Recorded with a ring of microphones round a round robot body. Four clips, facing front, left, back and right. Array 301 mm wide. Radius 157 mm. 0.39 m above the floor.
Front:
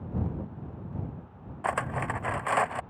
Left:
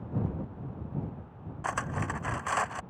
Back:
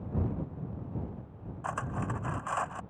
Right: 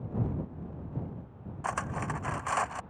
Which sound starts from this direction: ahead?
Cutlery clinking, at 1.6 s.